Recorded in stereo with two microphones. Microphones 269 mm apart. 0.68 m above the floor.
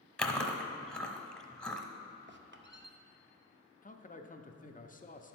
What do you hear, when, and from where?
0.2 s chewing: 5° left (ahead or behind), 0.7 m
2.3 s a squeak: 45° right (ahead or behind), 0.5 m
3.8 s a man speaking: 30° left (ahead or behind), 0.6 m